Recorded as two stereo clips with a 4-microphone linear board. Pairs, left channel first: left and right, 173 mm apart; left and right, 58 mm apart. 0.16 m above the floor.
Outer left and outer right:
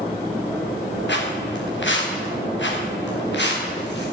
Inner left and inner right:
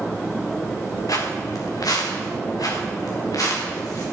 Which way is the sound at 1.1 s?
75° left (ahead or behind).